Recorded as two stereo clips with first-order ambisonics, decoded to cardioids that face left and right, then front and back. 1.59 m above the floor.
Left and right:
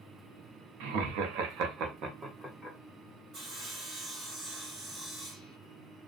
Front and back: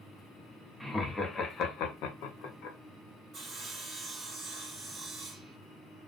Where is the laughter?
90° right, 0.7 m; by 2.8 s straight ahead, 0.7 m.